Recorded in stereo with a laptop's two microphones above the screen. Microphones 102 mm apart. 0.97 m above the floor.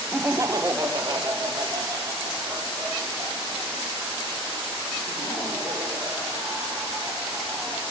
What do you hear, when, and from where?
0.1 s laughter: 15° right (ahead or behind), 0.5 m; by 7.8 s 25° right (ahead or behind), 5 m